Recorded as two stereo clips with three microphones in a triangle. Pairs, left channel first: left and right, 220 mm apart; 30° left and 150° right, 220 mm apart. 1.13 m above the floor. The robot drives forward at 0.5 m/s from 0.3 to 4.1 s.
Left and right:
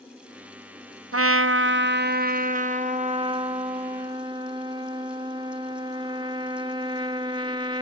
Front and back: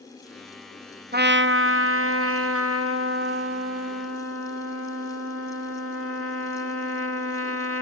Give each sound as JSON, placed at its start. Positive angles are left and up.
{"t": 1.1, "sound": "a trumpet", "azimuth_deg": -100}